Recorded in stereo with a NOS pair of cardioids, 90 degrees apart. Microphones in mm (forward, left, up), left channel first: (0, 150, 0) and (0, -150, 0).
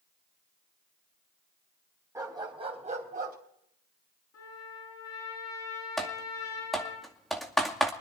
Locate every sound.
2.1 s a dog barking: 10° right, 4 m; by 3.4 s 35° right, 3.5 m
4.3 s a trumpet: 70° left, 6.5 m
6.0 s typing on a keyboard: straight ahead, 2 m